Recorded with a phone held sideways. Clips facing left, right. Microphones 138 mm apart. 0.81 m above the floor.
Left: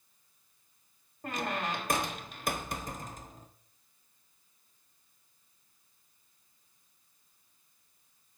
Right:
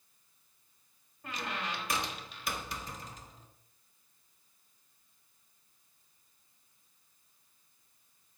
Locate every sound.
1.2 s a squeak: 50° left (ahead or behind), 1.1 m